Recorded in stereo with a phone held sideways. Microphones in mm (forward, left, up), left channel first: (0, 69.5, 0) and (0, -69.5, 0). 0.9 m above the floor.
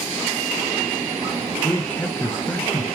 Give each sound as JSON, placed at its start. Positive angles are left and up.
{"t": 1.6, "sound": "a man speaking", "side_deg": 15, "distance_m": 0.6}